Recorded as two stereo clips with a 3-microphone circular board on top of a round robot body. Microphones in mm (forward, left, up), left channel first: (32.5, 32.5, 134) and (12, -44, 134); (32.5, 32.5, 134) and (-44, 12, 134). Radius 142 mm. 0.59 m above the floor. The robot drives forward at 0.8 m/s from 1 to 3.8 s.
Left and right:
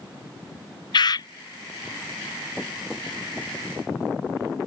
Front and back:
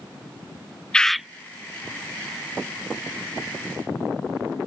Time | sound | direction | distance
0.9 | a bird | 95° left | ?